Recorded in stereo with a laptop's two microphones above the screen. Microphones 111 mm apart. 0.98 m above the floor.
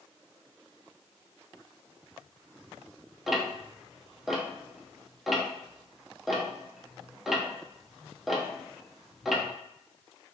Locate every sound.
3.3 s ticking: 5° right (ahead or behind), 0.5 m